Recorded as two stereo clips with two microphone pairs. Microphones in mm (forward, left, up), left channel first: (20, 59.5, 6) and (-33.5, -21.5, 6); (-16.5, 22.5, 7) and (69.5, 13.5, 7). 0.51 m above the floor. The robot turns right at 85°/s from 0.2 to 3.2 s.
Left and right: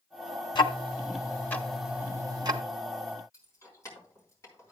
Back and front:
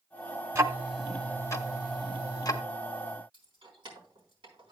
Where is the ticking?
45° left, 1.1 m; by 2.6 s 140° right, 1.1 m.